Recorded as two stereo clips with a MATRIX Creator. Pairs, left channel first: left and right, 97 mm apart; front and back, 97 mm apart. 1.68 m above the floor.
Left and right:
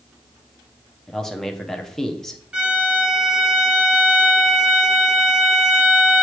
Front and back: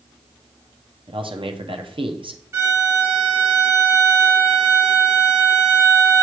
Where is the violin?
160° right, 1.4 m.